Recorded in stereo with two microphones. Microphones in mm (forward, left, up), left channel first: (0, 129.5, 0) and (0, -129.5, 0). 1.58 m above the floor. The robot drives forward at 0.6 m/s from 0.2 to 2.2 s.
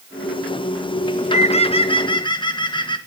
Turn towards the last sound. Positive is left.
turn(degrees=15)  # may be behind; listen again after turning